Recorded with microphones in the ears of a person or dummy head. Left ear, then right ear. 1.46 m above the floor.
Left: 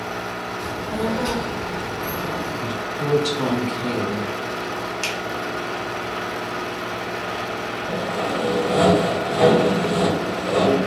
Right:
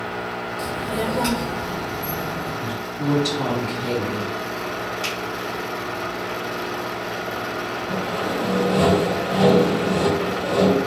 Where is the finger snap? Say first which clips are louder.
Left 2 dB; 70° left (ahead or behind), 1.1 m.